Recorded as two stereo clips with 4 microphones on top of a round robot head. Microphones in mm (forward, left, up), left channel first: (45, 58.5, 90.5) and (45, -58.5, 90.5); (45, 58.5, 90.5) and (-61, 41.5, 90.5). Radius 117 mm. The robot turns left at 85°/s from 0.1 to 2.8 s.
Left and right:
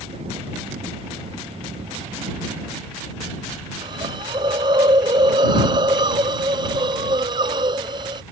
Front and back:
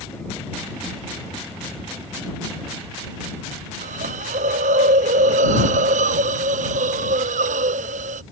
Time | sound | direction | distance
3.8 | a hiss | 150° right | ?